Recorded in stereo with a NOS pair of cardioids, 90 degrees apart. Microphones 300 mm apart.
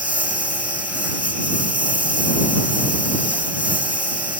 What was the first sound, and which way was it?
A lawn mower, 5° right.